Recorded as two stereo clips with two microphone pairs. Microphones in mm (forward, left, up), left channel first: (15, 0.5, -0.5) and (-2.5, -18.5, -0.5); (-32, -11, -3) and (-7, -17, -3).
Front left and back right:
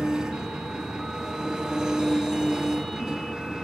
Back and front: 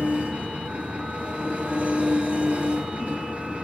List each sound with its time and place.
0.0 s an engine running: 55° right, 1.6 m